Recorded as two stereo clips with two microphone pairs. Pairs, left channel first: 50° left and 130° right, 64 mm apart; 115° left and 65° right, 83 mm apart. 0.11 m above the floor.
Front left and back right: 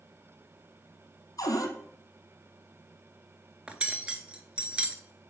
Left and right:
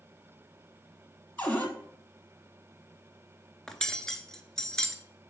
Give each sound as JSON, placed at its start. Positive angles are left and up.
{"t": 1.4, "sound": "a cupboard door", "azimuth_deg": 45, "distance_m": 1.2}
{"t": 3.7, "sound": "cutlery clinking", "azimuth_deg": -175, "distance_m": 0.7}